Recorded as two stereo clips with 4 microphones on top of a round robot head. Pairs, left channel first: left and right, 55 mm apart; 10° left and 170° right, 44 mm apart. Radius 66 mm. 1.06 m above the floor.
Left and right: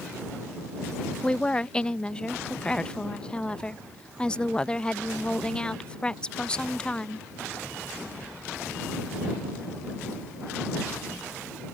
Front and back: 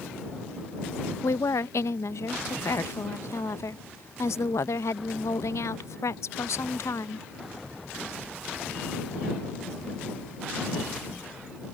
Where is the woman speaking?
15° left.